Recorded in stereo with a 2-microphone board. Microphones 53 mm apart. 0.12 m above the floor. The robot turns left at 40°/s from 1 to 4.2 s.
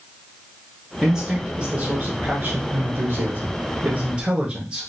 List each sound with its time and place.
1.0 s a man speaking: 15° right, 1.3 m; by 4.9 s 140° right, 1.3 m